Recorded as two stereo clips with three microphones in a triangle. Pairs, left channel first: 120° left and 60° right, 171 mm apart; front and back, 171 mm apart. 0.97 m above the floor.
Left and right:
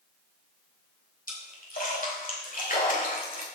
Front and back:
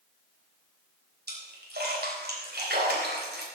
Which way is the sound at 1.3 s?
160° left.